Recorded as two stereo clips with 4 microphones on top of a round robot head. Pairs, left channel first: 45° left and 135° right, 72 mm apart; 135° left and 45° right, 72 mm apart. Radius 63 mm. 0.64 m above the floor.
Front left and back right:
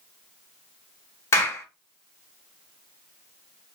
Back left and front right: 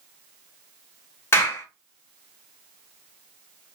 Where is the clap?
85° left, 1.4 m.